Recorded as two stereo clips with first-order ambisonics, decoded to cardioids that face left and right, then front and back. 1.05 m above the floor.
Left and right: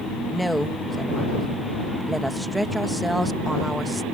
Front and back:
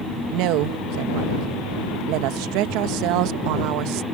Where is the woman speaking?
175° right.